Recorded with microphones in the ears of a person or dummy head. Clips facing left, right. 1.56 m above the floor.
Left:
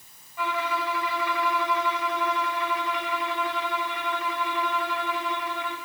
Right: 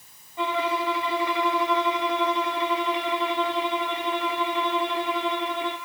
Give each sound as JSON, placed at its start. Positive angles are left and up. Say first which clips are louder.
{"t": 0.4, "sound": "a violin", "louder": "right 3 dB", "side_deg": -30, "distance_m": 1.9}